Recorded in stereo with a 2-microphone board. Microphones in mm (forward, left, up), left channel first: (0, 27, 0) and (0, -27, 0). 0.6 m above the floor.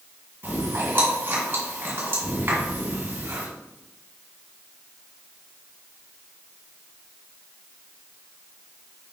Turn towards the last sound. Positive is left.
turn(degrees=-50)  # may be behind; listen again after turning